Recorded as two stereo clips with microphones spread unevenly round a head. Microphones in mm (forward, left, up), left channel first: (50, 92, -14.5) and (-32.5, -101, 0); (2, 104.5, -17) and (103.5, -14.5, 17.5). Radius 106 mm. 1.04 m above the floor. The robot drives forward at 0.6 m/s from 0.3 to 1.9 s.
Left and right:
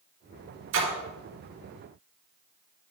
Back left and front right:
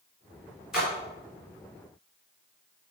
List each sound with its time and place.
0.7 s a splash: 130° right, 2.5 m; by 0.9 s 135° right, 2.5 m